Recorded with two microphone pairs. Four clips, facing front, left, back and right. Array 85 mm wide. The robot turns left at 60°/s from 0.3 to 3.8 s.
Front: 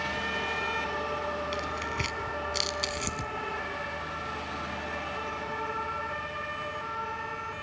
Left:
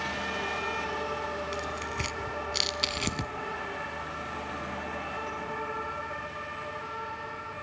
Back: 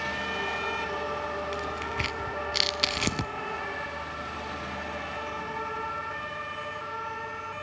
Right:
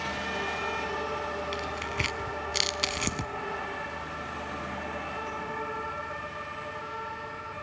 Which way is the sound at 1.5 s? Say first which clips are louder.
Right 1 dB, back 1 dB; 70° right.